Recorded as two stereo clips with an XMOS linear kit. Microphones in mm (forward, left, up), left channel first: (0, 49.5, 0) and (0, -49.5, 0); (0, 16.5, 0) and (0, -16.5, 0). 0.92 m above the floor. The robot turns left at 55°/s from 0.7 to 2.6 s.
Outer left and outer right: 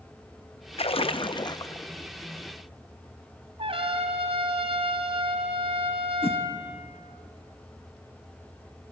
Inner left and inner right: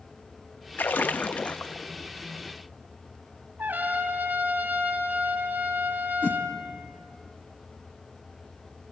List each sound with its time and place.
0.8 s a splash: 85° left, 0.6 m; by 1.9 s 25° left, 0.6 m
3.6 s a trumpet: 75° right (ahead or behind), 2.5 m
6.2 s a whoosh: 70° left (ahead or behind), 1.2 m